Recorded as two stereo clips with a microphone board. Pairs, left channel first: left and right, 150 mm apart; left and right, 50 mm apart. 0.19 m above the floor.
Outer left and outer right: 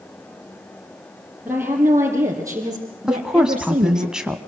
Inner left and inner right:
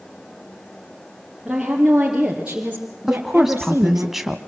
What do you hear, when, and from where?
1.4 s a woman speaking: 10° right (ahead or behind), 4 m; by 4.1 s 50° right (ahead or behind), 2.5 m
3.1 s a woman speaking: 5° right (ahead or behind), 1.1 m